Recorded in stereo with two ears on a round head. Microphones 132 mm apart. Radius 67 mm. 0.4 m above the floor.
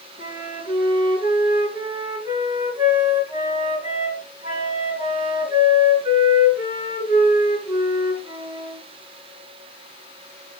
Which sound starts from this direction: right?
A flute, at 0.2 s.